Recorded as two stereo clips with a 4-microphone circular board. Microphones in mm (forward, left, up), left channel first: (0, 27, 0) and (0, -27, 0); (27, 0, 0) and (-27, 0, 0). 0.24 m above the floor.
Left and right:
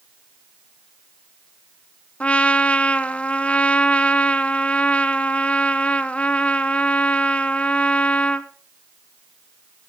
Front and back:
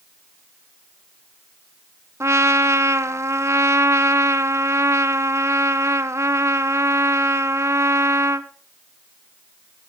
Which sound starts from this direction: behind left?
A trumpet, at 2.2 s.